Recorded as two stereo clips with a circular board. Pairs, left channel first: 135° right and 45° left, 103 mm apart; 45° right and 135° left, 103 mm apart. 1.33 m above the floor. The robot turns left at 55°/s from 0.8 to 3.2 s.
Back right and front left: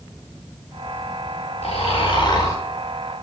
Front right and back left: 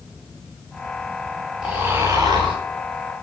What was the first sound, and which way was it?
Snoring, 140° right.